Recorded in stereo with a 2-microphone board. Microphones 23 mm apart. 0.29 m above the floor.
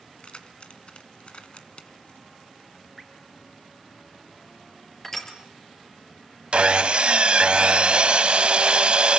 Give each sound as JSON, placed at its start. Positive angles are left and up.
{"t": 0.2, "sound": "keys jangling", "side_deg": 50, "distance_m": 1.7}
{"t": 3.0, "sound": "dripping", "side_deg": 0, "distance_m": 3.0}
{"t": 5.0, "sound": "crushing", "side_deg": 15, "distance_m": 4.0}
{"t": 6.5, "sound": "sawing", "side_deg": -50, "distance_m": 0.6}